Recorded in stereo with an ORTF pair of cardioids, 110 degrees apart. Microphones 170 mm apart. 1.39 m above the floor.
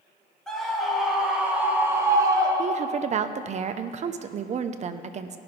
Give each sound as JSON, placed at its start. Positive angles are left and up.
{"t": 0.5, "sound": "a scream", "azimuth_deg": 5, "distance_m": 3.0}
{"t": 2.6, "sound": "a woman speaking", "azimuth_deg": -45, "distance_m": 0.7}